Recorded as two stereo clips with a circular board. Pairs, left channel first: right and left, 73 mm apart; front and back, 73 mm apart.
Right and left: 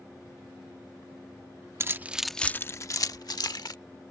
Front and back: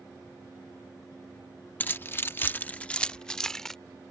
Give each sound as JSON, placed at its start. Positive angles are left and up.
{"t": 1.8, "sound": "keys jangling", "azimuth_deg": 55}